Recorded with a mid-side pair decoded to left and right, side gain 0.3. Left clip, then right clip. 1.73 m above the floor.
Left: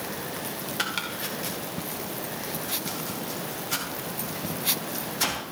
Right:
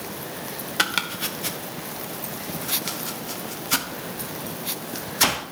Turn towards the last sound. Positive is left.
turn(degrees=-70)